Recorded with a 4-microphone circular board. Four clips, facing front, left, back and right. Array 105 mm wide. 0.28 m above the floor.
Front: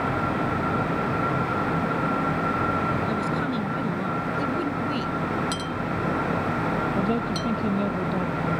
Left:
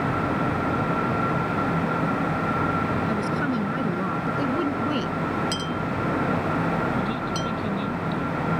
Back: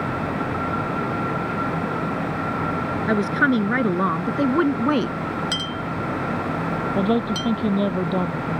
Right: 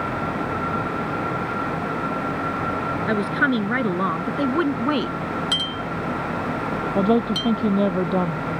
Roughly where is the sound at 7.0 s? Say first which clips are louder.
Right 7 dB, back 4 dB; behind right.